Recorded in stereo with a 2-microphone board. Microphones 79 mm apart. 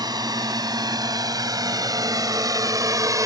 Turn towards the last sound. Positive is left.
turn(degrees=-50)  # may be behind; listen again after turning